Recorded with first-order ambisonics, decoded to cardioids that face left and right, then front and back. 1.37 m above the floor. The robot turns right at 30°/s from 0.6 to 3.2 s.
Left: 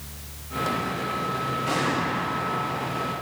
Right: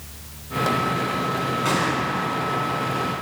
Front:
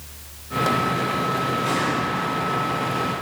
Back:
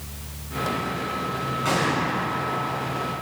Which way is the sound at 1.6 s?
110° right.